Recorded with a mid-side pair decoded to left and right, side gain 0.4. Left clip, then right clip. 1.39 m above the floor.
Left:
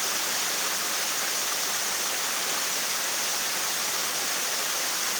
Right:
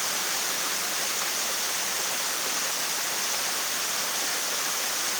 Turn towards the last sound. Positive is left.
No sound to turn to.